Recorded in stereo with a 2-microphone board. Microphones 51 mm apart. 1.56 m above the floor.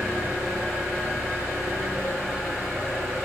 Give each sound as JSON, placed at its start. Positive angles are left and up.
{"t": 0.0, "sound": "an engine running", "side_deg": -60, "distance_m": 1.9}